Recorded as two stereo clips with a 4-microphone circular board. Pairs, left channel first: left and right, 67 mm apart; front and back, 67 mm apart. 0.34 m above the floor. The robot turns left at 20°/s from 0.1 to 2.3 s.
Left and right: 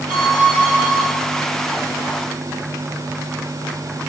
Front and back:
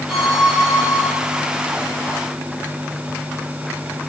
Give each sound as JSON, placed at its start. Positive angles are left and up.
{"t": 0.1, "sound": "a violin", "azimuth_deg": -90, "distance_m": 2.5}